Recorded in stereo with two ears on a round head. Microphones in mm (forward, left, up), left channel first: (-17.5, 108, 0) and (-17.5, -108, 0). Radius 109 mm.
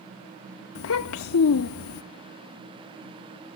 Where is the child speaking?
65° left (ahead or behind), 0.5 m.